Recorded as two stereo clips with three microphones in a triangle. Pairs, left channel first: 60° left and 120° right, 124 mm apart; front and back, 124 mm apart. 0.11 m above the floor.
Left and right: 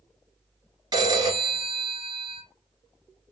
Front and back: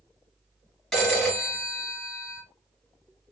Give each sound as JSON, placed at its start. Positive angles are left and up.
{"t": 0.9, "sound": "a phone ringing", "azimuth_deg": -85, "distance_m": 1.5}